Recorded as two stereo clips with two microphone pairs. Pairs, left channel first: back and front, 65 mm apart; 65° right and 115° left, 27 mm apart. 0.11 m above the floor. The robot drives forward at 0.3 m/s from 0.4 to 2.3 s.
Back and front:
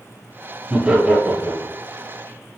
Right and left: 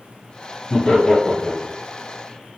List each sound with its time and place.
0.7 s laughter: 60° right, 1.5 m; by 1.8 s 85° right, 1.5 m